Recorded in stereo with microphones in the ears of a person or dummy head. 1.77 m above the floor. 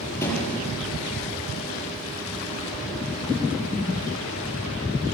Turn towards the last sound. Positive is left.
turn(degrees=15)  # may be behind; listen again after turning